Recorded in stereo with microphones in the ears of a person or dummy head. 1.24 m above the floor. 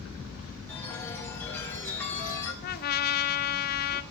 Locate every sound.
0.7 s a chime: 10° left (ahead or behind), 2.5 m
2.6 s a trumpet: 45° left (ahead or behind), 0.7 m